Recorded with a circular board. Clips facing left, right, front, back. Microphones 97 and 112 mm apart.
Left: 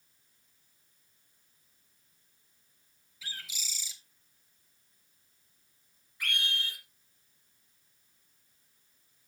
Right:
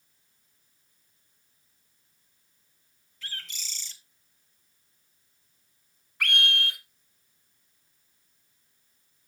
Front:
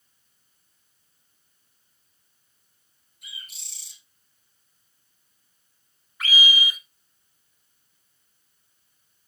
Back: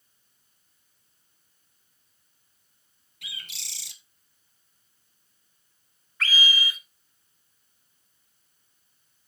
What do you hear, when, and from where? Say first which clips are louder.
3.2 s a bird: right 2 dB, back 3 dB; 175° left, 1.3 m
6.2 s a scream: right 8 dB, front 2 dB; 75° right, 2.5 m